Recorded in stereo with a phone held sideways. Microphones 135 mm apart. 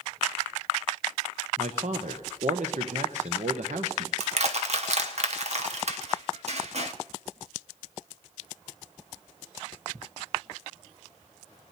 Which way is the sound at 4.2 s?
55° right (ahead or behind).